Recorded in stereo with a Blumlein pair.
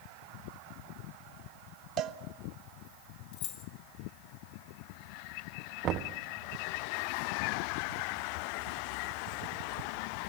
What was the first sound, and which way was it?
A cowbell, 35° right.